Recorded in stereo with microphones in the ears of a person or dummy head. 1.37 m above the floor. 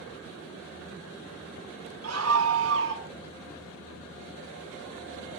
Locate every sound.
2.0 s a scream: 80° right, 2.5 m; by 3.1 s 60° right (ahead or behind), 2.5 m